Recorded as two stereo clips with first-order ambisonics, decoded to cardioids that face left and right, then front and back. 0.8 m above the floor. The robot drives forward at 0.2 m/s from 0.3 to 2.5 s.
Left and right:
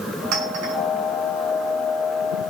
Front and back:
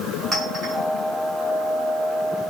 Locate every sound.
0.3 s a clink: 100° right, 5 m